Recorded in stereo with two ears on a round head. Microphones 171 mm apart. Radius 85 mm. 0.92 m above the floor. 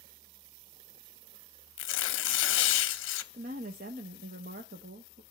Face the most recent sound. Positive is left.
turn(degrees=-45)  # may be behind; listen again after turning